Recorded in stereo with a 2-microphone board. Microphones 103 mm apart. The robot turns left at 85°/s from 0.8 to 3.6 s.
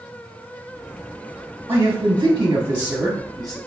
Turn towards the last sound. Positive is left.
turn(degrees=150)